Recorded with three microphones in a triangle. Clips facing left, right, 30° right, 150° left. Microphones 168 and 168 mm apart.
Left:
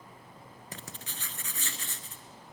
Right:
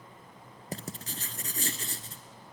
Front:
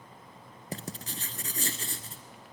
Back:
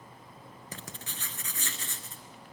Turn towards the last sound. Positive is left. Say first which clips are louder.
# right 8 dB, front 7 dB
turn(degrees=-60)